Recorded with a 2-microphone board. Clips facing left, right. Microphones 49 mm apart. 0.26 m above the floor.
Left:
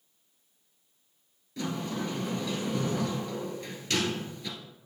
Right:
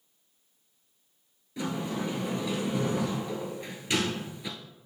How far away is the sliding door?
About 1.3 m.